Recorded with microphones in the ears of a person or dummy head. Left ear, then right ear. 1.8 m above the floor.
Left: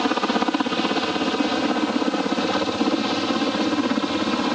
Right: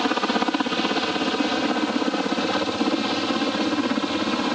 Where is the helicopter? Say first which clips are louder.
Left 1 dB; 5° right (ahead or behind); by 4.5 s centre (ahead or behind).